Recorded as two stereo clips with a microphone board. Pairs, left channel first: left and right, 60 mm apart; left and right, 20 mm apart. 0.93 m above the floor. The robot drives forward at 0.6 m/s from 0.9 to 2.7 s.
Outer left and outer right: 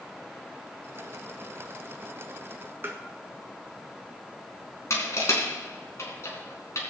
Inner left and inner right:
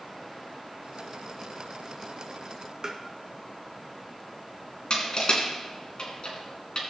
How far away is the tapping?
About 1.6 m.